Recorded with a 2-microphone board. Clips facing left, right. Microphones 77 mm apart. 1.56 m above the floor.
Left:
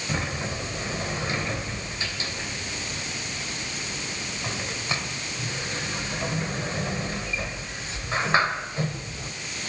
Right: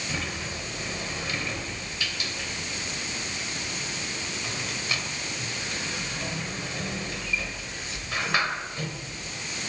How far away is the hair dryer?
No hair dryer in this recording.